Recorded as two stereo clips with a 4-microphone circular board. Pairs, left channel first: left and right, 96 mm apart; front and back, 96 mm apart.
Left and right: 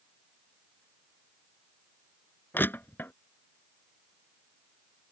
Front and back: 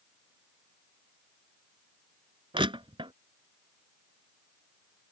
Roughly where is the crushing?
Behind.